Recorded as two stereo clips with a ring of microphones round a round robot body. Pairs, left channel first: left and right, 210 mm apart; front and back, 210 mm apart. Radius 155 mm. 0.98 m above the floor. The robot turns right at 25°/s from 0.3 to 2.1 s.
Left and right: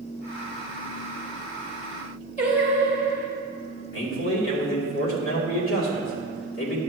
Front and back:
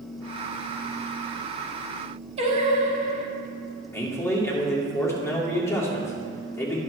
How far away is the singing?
About 1.0 m.